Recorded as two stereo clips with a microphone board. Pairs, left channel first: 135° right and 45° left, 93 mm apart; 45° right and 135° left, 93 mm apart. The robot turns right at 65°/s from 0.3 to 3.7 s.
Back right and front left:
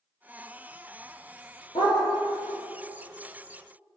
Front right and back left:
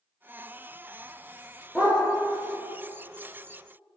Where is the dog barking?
125° right, 3 m; by 2.0 s 110° right, 3 m.